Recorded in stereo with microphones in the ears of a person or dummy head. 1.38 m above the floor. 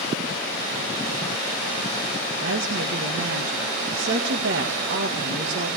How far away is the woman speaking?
About 1.8 m.